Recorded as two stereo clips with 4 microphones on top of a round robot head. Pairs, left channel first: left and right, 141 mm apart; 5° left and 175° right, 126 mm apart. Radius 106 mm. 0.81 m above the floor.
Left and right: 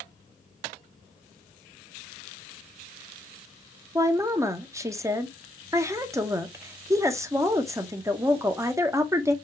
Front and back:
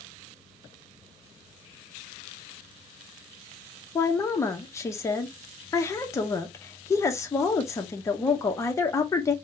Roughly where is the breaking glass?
No breaking glass in this recording.